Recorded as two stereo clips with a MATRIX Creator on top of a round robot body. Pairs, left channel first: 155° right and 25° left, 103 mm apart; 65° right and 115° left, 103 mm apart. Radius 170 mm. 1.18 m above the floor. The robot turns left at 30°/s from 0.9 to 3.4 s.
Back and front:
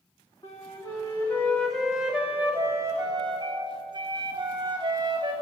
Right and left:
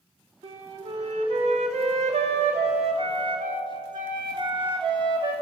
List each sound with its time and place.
0.4 s a flute: 140° left, 3 m; by 5.3 s 65° left, 3 m